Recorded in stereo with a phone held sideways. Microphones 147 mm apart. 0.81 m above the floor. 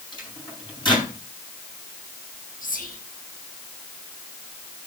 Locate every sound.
0.1 s a microwave: 35° left (ahead or behind), 8 m
2.6 s whispering: 75° left (ahead or behind), 5 m